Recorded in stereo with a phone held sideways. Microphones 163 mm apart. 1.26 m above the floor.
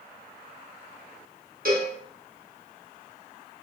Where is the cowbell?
60° right (ahead or behind), 0.8 m.